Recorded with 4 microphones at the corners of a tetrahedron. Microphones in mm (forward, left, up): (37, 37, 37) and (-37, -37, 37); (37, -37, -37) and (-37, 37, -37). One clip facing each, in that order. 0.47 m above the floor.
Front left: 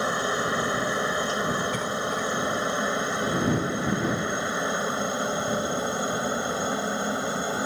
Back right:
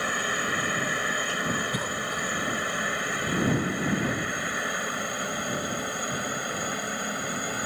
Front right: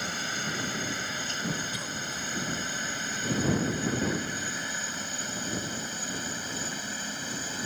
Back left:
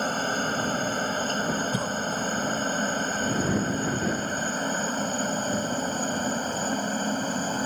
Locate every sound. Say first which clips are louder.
0.0 s a helicopter: front left 4 dB, back left 8 dB; 105° left
1.7 s a cough: front left 3 dB, back left 9 dB; 145° left